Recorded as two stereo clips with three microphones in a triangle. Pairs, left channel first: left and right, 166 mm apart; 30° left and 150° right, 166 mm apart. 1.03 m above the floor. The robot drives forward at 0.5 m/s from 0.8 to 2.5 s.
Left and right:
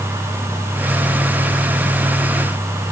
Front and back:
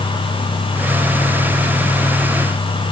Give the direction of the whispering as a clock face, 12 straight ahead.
I don't hear whispering.